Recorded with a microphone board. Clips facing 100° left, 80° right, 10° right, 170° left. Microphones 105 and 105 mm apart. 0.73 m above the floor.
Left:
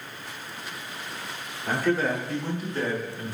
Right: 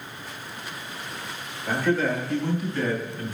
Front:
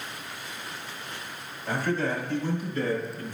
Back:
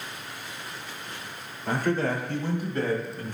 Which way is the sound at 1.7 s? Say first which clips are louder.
Right 1 dB, back 2 dB; 140° left.